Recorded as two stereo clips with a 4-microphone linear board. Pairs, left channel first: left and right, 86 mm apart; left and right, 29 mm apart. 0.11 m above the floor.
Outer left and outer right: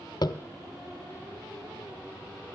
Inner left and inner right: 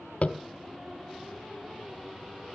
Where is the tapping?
55° left (ahead or behind), 0.5 m.